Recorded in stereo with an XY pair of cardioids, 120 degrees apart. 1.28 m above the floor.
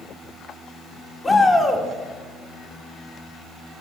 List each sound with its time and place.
1.2 s a shout: 25° left, 3 m